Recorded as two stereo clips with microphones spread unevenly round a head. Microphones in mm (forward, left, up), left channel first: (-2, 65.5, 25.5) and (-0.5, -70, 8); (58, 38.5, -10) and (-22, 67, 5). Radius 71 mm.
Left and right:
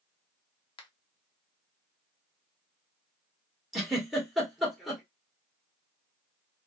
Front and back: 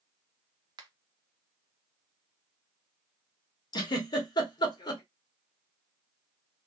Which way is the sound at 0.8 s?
140° left.